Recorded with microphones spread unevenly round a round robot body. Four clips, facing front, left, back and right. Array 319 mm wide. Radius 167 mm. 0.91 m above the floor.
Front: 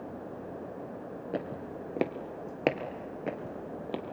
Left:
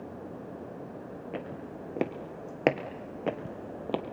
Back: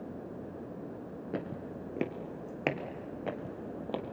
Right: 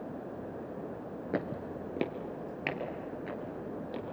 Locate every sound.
1.3 s footsteps: 110° right, 0.9 m; by 4.0 s 70° left, 1.8 m